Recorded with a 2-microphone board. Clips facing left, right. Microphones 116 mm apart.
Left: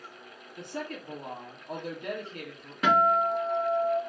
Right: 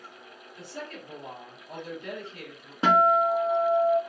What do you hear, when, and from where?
0.6 s a woman speaking: 55° left (ahead or behind), 1.3 m
2.8 s a guitar: 25° right (ahead or behind), 0.9 m